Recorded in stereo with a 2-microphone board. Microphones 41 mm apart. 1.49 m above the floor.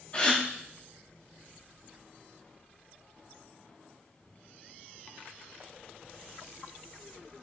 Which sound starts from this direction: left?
A gasp, at 0.1 s.